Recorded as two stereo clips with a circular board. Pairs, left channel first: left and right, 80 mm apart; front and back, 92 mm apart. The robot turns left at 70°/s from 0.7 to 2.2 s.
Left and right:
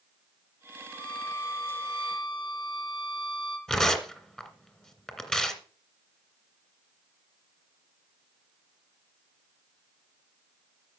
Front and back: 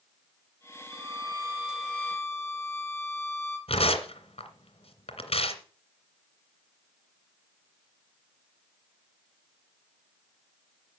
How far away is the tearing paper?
About 2 m.